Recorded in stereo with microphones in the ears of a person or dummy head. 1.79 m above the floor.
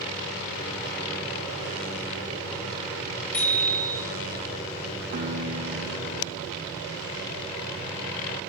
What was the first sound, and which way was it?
A bicycle bell, 10° left (ahead or behind).